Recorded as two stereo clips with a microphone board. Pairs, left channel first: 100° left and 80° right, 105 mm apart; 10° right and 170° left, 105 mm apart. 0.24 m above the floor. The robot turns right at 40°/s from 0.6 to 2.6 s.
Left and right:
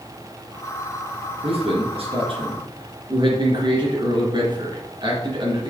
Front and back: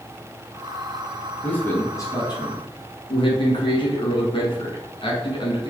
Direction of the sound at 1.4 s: 90° right.